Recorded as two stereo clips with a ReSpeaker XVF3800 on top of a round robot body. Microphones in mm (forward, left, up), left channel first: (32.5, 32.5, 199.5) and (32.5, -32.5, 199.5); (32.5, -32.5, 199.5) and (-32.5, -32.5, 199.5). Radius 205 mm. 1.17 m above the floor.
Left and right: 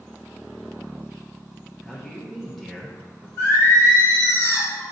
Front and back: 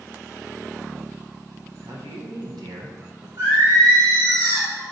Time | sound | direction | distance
1.8 | a man speaking | straight behind | 0.9 m
3.4 | singing | 145° left | 1.7 m